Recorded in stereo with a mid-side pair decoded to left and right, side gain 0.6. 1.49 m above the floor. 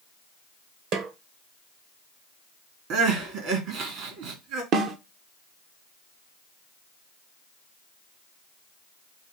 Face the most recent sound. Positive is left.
turn(degrees=-55)